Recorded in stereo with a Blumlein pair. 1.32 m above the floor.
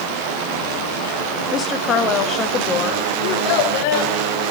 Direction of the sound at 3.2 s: 45° left.